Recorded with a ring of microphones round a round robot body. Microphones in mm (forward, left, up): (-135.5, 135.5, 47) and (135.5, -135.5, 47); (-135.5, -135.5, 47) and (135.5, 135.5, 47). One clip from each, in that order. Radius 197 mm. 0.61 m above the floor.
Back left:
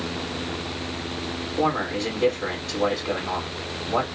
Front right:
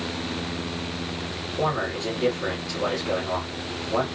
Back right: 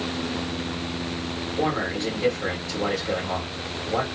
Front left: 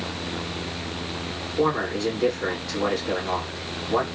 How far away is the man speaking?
About 2.5 m.